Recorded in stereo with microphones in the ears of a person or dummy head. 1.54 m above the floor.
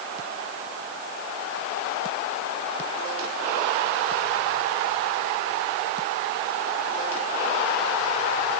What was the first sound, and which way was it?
Only background noise.